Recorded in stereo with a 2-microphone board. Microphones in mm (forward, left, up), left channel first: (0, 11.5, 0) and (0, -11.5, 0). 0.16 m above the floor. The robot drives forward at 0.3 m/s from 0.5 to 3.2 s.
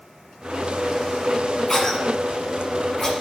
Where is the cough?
25° left (ahead or behind), 1.4 m.